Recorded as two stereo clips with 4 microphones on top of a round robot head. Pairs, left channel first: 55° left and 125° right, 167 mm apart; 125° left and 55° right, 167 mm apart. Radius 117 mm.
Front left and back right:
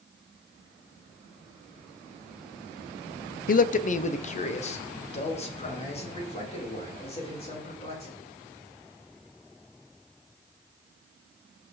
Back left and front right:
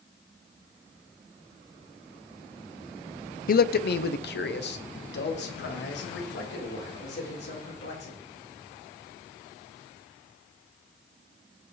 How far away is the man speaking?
About 0.6 m.